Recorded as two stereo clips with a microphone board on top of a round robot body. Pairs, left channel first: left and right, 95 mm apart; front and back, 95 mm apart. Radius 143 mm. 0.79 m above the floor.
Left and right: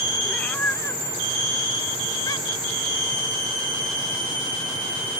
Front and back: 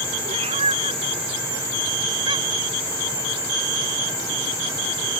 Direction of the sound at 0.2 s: 170° left.